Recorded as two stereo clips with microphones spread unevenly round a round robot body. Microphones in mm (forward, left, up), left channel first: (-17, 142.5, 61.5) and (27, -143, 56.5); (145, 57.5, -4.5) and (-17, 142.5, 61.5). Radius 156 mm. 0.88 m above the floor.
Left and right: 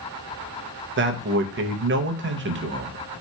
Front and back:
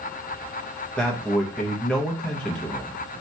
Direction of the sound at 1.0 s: 80° right.